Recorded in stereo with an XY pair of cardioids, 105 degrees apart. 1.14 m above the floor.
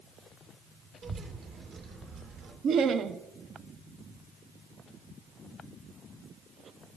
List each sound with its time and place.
1.0 s a child speaking: 65° right, 3 m
2.6 s laughter: 65° right, 0.7 m